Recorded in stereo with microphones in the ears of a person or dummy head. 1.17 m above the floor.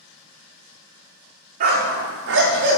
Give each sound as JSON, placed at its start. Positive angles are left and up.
{"t": 1.6, "sound": "a dog barking", "side_deg": -50, "distance_m": 1.2}